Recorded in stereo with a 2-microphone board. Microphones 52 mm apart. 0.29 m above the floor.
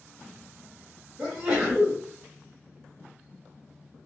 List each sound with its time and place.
1.2 s a sneeze: 15° right (ahead or behind), 1.4 m